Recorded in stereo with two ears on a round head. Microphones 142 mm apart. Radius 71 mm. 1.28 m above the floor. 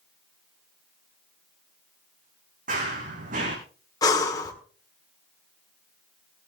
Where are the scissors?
I don't hear scissors.